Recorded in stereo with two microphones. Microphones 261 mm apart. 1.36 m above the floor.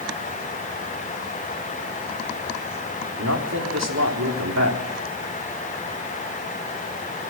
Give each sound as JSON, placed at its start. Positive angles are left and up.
{"t": 3.1, "sound": "a man speaking", "side_deg": -80, "distance_m": 4.0}